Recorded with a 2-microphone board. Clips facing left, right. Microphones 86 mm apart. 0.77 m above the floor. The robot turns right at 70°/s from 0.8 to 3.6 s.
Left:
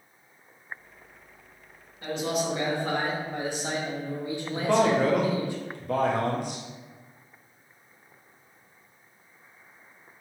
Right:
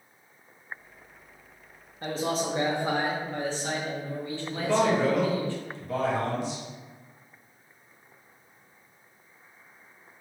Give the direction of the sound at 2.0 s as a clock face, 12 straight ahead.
3 o'clock.